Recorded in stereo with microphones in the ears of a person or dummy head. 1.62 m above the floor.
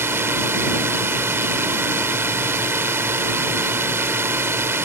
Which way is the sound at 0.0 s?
15° right (ahead or behind).